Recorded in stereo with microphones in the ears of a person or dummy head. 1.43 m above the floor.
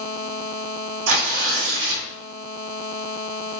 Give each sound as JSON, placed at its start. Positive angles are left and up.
{"t": 1.1, "sound": "tearing paper", "side_deg": -70, "distance_m": 0.8}